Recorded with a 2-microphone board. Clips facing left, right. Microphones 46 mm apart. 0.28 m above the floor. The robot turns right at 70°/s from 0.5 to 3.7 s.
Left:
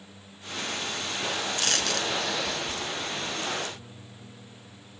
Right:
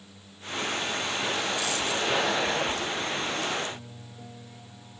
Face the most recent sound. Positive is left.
turn(degrees=-80)